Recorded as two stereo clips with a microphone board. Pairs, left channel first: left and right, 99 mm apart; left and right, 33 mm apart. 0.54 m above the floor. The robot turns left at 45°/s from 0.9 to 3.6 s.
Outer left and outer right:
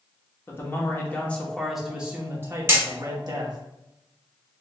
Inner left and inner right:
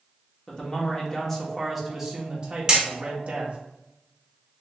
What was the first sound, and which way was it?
A man speaking, 35° left.